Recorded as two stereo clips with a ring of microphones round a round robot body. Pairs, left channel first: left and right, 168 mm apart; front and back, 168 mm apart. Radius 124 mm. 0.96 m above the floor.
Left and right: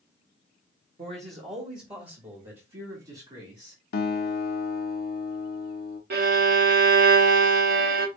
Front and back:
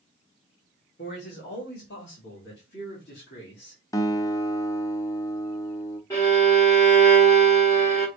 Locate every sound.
1.0 s a man speaking: 40° right, 1.4 m; by 3.8 s 35° right, 3 m
3.9 s a guitar: 70° left, 0.7 m
6.1 s a violin: 80° right, 0.8 m